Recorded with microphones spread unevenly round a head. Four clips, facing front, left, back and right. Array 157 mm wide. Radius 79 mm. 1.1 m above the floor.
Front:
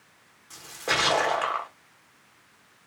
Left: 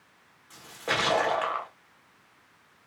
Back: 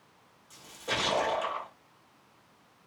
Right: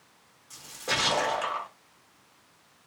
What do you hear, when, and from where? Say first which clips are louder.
0.5 s a splash: left 2 dB, front 6 dB; 30° left, 1.5 m